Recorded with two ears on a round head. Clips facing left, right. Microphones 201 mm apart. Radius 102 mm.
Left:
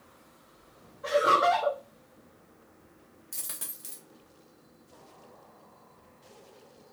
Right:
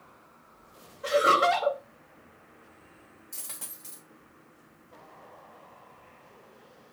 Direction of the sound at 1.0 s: 35° right (ahead or behind).